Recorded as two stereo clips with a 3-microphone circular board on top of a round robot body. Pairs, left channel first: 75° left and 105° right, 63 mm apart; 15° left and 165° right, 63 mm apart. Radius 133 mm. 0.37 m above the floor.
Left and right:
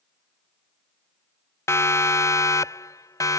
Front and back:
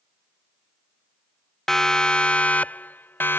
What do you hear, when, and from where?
1.7 s a siren: 95° left; by 3.4 s 65° left